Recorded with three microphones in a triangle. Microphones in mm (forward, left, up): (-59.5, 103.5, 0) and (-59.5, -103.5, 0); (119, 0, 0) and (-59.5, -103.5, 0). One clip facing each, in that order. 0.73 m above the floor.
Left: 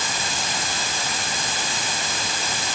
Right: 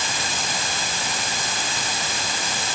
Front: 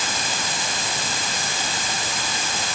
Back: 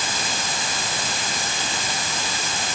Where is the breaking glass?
No breaking glass in this recording.